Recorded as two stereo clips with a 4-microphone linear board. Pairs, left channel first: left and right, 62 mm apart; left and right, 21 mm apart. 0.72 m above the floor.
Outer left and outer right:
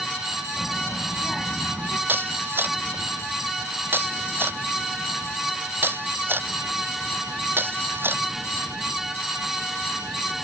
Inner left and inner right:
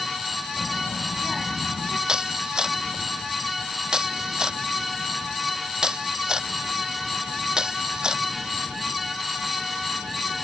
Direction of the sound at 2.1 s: 40° right (ahead or behind).